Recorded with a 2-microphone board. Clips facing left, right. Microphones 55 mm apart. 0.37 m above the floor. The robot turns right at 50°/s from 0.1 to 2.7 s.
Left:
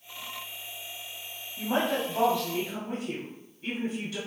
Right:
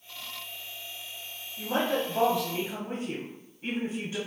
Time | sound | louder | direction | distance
1.6 | a woman speaking | even | 155° left | 1.8 m